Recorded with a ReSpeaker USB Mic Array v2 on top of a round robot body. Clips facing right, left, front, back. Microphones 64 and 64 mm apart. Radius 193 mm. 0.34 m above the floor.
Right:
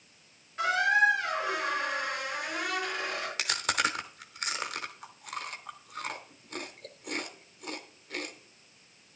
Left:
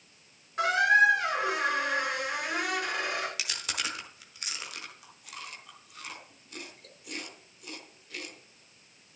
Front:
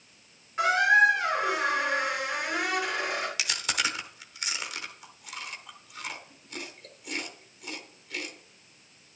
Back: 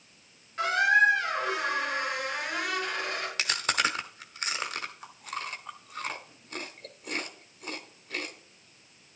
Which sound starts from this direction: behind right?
Chewing, at 3.4 s.